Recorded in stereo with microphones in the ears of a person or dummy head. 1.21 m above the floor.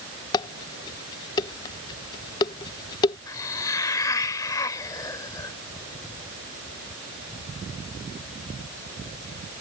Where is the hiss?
25° left (ahead or behind).